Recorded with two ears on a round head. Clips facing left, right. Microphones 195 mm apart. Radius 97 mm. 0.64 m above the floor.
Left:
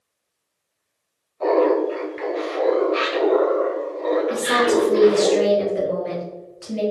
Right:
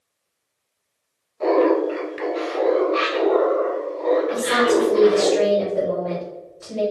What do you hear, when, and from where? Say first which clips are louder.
1.4 s laughter: even; 25° right (ahead or behind), 1.2 m; by 5.3 s 50° left (ahead or behind), 1.7 m
4.3 s a woman speaking: even; 40° left (ahead or behind), 1.3 m